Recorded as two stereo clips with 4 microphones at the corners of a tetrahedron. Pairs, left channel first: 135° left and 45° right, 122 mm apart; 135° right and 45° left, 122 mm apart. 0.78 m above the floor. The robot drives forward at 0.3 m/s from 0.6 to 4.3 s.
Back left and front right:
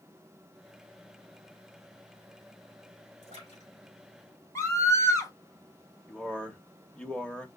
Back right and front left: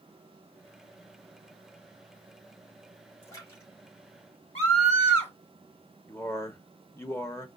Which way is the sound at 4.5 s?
160° right.